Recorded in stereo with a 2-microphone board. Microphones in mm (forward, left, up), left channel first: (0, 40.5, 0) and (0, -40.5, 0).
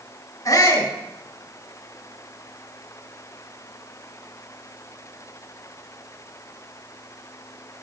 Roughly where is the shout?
Left.